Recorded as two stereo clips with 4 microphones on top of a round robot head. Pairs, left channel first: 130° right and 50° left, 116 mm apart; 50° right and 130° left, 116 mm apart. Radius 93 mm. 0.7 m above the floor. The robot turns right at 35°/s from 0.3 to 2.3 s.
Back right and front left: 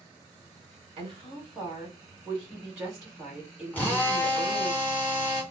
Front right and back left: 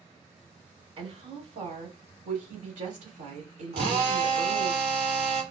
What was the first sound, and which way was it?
A woman speaking, 90° left.